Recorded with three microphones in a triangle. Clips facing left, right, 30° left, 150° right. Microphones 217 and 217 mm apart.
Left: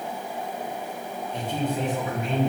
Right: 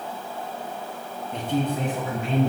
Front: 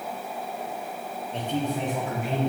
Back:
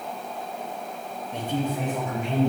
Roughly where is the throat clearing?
I don't hear throat clearing.